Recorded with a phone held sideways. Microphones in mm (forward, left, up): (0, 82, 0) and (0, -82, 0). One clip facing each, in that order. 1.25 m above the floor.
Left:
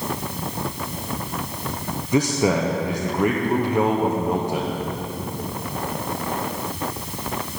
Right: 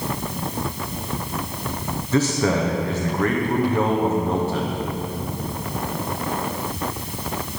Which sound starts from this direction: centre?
A man speaking, at 2.1 s.